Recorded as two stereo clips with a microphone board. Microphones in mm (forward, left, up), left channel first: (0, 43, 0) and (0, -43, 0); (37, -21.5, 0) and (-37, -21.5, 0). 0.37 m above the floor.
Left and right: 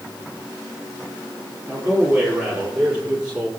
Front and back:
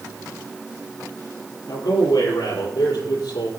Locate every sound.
1.7 s a man speaking: 15° right, 8.5 m